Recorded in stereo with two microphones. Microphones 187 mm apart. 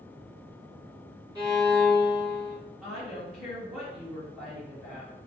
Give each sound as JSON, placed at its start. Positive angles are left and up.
{"t": 1.4, "sound": "a violin", "side_deg": -25, "distance_m": 1.3}
{"t": 2.8, "sound": "a woman speaking", "side_deg": -5, "distance_m": 1.5}